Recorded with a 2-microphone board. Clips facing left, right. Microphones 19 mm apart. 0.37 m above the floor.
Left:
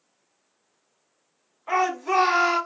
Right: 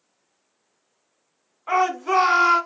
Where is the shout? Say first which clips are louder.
Right 2 dB; 30° right (ahead or behind), 1.9 m.